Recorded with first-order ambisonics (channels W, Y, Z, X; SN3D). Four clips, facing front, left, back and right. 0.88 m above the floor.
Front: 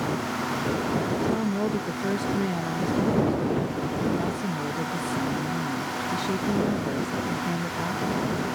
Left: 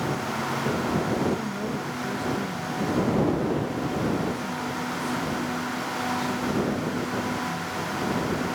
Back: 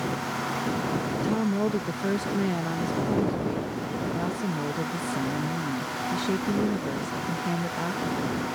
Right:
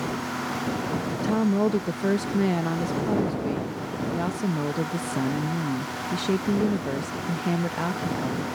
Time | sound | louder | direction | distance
1.2 | a woman speaking | right 4 dB, even | 95° right | ?